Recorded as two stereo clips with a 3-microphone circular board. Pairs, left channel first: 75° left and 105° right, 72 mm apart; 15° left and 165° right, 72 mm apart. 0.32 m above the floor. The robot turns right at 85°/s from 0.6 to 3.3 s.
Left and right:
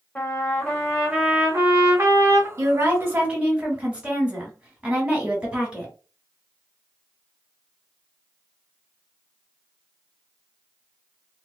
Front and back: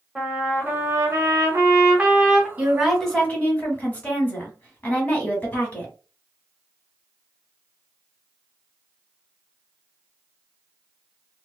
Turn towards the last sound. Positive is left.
turn(degrees=-40)